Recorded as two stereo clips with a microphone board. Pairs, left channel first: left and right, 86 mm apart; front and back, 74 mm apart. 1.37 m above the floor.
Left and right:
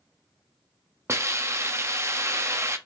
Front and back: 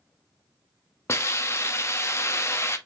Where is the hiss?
40° right, 1.0 m.